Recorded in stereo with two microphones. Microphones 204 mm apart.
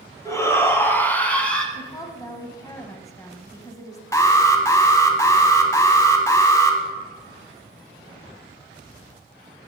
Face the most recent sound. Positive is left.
turn(degrees=15)  # may be behind; listen again after turning